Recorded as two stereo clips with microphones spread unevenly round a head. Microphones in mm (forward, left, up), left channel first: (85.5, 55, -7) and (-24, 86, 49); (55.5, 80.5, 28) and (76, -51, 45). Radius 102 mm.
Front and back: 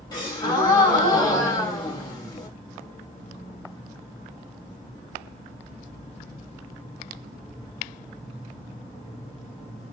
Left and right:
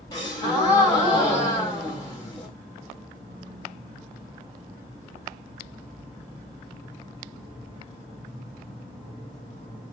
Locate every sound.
0.1 s a gasp: 35° left, 2.5 m